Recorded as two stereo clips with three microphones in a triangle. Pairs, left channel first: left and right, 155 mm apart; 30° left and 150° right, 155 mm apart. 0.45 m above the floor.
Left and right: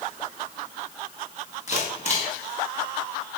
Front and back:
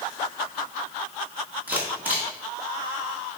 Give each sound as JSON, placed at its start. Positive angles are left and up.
{"t": 1.7, "sound": "a camera shutter", "azimuth_deg": 130, "distance_m": 4.0}